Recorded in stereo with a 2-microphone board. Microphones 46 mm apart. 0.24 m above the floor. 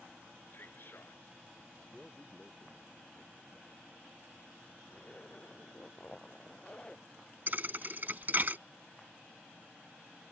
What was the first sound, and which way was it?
A man speaking, 50° left (ahead or behind).